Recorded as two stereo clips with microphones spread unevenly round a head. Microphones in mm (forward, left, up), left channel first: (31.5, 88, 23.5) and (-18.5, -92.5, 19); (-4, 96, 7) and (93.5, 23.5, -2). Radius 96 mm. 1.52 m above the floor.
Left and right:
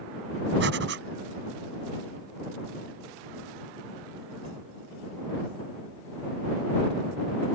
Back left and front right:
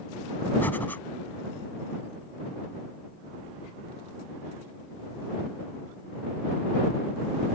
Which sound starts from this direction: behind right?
Breathing, at 0.6 s.